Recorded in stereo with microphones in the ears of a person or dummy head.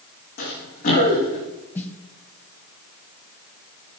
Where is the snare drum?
15° left (ahead or behind), 0.9 m.